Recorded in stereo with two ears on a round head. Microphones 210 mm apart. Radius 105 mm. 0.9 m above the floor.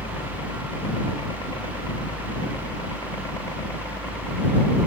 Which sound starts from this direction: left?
A helicopter, at 0.0 s.